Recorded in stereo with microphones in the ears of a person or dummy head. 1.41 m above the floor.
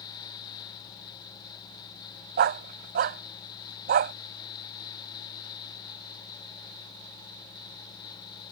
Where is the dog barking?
50° right (ahead or behind).